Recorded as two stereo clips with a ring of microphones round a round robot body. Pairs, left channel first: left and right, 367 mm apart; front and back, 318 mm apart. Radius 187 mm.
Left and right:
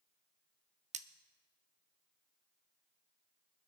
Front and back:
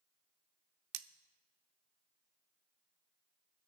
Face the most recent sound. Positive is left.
turn(degrees=-160)